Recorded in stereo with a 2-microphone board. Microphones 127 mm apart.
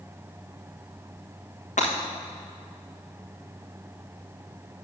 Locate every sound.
1.8 s breaking glass: 75° left (ahead or behind), 3 m